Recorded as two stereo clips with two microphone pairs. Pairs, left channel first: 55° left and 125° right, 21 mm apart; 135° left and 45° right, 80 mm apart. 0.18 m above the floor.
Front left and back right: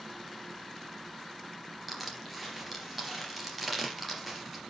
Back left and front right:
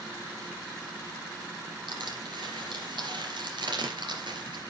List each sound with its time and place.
1.9 s crushing: 40° right, 3 m